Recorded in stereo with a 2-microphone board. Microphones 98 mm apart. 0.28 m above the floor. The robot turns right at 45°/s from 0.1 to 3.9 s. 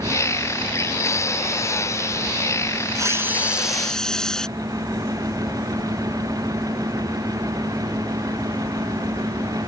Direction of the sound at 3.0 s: 35° right.